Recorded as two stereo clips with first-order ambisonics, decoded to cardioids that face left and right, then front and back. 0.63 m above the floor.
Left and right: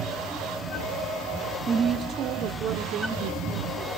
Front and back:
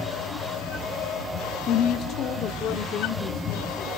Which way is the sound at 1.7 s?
25° right.